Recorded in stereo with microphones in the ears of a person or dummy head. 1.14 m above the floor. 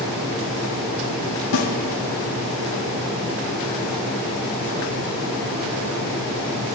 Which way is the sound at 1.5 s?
65° left (ahead or behind).